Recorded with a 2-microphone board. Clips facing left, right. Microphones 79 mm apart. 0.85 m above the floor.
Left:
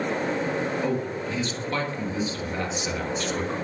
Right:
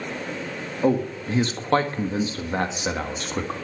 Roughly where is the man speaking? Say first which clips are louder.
Right 4 dB; right.